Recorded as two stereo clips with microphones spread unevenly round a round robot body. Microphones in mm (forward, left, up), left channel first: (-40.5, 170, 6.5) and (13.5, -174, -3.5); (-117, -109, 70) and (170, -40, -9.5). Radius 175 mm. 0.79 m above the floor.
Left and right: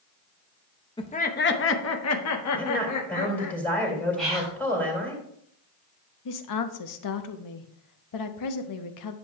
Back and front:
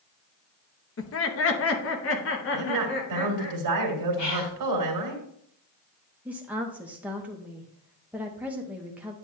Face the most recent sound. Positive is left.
turn(degrees=85)